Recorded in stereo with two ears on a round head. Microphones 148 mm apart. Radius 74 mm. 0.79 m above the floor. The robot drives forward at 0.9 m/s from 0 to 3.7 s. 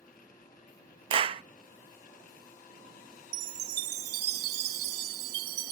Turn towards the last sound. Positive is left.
turn(degrees=-65)  # may be behind; listen again after turning